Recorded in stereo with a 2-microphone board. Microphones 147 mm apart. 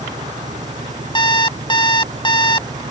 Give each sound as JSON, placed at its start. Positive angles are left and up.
{"t": 0.0, "sound": "an engine running", "side_deg": -55}
{"t": 1.1, "sound": "an alarm clock", "side_deg": 30}